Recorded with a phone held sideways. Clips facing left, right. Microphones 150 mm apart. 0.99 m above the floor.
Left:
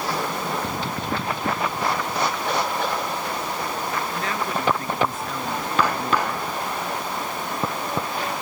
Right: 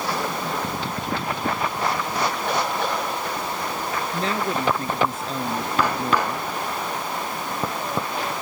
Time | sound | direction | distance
4.1 | a woman speaking | 30° right (ahead or behind) | ?